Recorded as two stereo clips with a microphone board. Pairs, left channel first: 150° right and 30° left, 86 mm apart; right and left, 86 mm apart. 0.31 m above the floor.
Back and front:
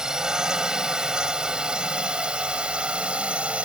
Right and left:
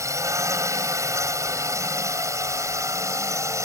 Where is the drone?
110° left; by 3.7 s 100° left.